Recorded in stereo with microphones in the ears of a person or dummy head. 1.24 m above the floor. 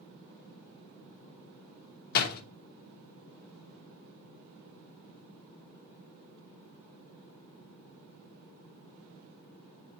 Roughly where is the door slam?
Left.